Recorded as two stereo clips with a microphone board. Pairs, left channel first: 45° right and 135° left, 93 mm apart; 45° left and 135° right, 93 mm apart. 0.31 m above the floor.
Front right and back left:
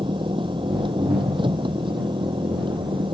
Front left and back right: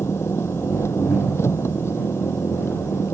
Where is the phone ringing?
I don't hear a phone ringing.